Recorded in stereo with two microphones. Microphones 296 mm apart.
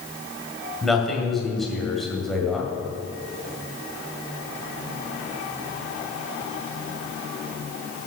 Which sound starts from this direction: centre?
A man speaking, at 0.8 s.